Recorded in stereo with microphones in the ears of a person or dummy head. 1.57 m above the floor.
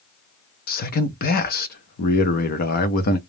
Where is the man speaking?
50° left (ahead or behind), 0.6 m.